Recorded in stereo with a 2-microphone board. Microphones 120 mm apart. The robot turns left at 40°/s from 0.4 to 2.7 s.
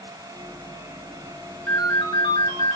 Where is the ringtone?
155° left, 1.7 m; by 2.8 s 115° left, 1.7 m.